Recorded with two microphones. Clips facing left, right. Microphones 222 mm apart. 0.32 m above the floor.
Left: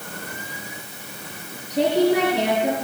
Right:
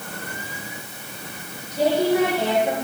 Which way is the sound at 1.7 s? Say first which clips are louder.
Left 2 dB; 75° left (ahead or behind).